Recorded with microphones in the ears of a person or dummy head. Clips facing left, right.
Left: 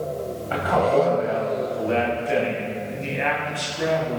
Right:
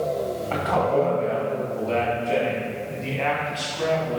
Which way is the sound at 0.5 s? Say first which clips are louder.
Left 3 dB; 10° left (ahead or behind).